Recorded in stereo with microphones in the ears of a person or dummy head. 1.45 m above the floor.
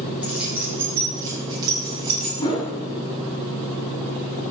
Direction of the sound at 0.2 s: 5° right (ahead or behind).